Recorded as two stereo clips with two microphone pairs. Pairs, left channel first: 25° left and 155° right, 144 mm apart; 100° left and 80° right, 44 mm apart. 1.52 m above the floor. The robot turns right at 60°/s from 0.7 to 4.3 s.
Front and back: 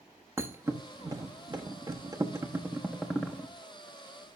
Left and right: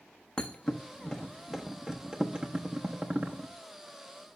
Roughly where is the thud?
Behind left.